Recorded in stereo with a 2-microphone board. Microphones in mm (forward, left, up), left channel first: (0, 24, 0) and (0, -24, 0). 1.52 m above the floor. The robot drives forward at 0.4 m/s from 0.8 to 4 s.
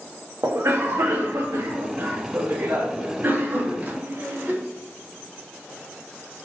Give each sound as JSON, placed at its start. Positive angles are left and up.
{"t": 0.4, "sound": "a cough", "side_deg": -85, "distance_m": 1.0}